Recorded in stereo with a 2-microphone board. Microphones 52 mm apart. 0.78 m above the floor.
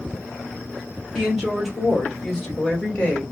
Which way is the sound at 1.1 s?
10° right (ahead or behind).